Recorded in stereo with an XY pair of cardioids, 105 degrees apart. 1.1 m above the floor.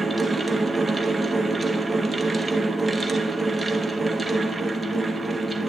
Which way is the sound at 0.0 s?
15° right.